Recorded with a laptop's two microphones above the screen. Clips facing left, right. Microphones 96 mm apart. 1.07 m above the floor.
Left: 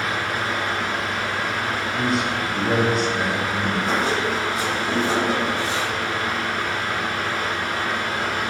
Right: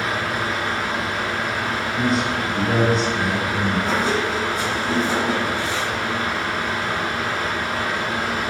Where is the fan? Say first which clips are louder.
Right 1 dB; 10° right (ahead or behind), 0.8 m.